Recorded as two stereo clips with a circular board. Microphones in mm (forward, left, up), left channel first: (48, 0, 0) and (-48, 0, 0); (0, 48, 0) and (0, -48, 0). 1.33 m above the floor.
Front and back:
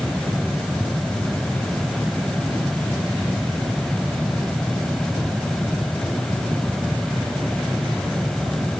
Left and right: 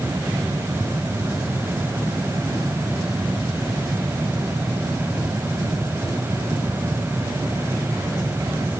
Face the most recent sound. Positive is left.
No sound to turn to.